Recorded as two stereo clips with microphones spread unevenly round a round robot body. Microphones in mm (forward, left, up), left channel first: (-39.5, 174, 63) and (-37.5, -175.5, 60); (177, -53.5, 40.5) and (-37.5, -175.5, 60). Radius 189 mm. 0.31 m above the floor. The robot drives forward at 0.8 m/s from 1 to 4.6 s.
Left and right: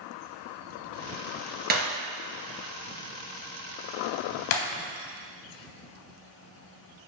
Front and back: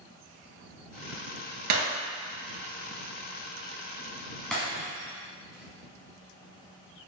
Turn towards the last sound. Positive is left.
turn(degrees=120)